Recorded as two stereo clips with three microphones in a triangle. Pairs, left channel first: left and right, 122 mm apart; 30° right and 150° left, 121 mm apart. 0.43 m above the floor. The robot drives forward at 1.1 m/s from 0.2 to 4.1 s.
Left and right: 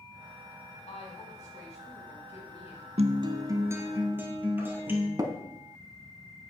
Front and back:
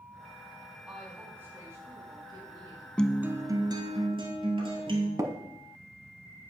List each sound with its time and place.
0.9 s a woman speaking: 70° left, 3 m; by 2.9 s 115° left, 3 m
3.0 s a guitar: 110° right, 0.5 m; by 5.1 s 160° right, 1.5 m
5.2 s tapping: 145° right, 0.9 m